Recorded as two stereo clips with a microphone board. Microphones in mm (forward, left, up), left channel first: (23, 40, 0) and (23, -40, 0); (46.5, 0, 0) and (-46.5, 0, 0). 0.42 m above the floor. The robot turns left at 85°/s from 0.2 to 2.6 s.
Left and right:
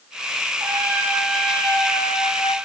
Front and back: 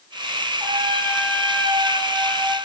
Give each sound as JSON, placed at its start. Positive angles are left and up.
{"t": 0.6, "sound": "a trumpet", "azimuth_deg": -125, "distance_m": 6.0}